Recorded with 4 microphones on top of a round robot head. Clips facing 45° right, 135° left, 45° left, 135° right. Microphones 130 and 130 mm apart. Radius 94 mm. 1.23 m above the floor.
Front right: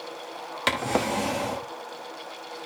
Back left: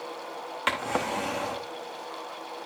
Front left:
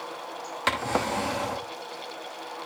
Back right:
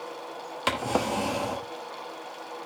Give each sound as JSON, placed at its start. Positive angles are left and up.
{"t": 0.7, "sound": "a drawer", "azimuth_deg": -70, "distance_m": 0.6}